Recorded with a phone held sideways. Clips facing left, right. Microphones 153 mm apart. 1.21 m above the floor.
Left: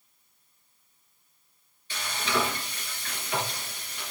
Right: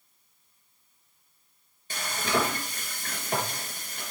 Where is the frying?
45° right (ahead or behind), 3 m.